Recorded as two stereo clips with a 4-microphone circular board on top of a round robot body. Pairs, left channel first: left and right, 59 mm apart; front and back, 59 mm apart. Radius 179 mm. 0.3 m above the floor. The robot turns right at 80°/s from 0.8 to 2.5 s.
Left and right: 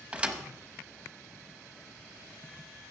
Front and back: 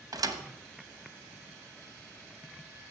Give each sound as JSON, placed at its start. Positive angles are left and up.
{"t": 0.1, "sound": "a thud", "azimuth_deg": -160, "distance_m": 0.8}